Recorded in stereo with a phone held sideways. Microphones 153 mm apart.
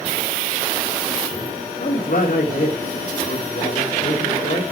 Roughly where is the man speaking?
Left.